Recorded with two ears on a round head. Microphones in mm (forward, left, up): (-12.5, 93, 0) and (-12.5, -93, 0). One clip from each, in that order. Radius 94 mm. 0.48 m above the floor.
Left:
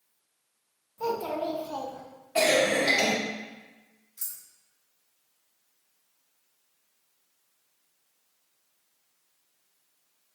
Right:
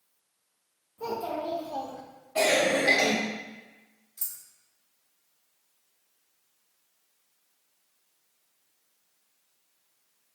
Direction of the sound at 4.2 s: 5° left (ahead or behind).